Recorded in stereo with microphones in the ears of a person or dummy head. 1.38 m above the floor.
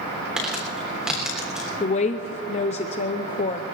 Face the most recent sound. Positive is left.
turn(degrees=40)  # may be behind; listen again after turning